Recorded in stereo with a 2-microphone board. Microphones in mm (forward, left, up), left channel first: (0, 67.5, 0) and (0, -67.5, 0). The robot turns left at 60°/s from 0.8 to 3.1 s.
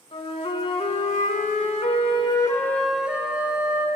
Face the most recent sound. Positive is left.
turn(degrees=-10)